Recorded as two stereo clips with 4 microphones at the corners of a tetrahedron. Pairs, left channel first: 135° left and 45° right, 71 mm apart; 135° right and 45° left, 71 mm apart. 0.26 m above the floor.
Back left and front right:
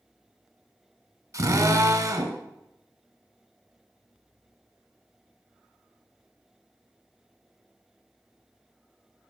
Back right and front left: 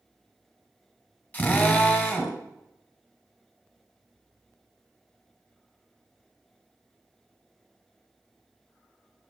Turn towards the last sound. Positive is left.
turn(degrees=-75)